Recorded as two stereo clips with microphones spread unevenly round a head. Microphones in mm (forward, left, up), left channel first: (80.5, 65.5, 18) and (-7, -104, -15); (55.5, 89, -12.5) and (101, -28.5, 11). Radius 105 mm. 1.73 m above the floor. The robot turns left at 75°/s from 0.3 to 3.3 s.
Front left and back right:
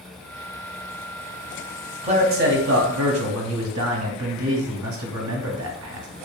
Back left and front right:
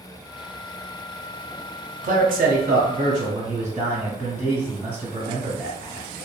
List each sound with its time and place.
2.0 s a man speaking: 55° right, 0.9 m; by 6.1 s 150° right, 0.9 m